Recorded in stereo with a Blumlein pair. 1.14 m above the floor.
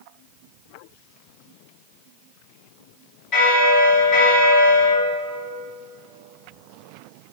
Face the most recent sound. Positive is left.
turn(degrees=35)